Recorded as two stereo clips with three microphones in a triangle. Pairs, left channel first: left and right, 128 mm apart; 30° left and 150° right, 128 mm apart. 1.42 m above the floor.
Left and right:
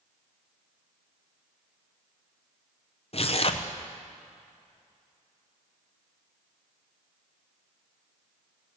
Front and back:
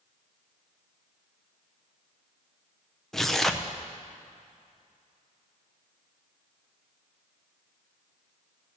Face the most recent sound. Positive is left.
turn(degrees=115)